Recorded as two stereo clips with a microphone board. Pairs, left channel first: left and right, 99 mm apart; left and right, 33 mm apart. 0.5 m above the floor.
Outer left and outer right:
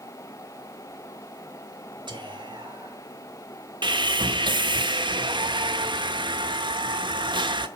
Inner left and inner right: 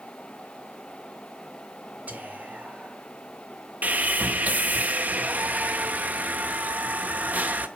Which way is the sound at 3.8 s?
50° right (ahead or behind).